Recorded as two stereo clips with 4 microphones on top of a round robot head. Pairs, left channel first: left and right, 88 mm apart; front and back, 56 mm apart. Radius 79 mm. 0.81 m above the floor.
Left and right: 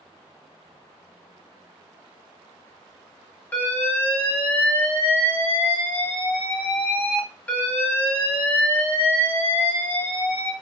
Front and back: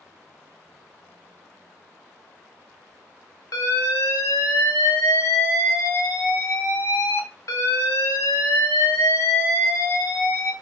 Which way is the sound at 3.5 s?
20° left.